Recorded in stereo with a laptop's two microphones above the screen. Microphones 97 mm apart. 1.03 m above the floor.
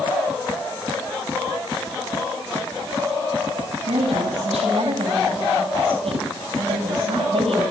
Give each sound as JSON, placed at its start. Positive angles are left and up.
{"t": 3.9, "sound": "a woman speaking", "side_deg": -85, "distance_m": 8.5}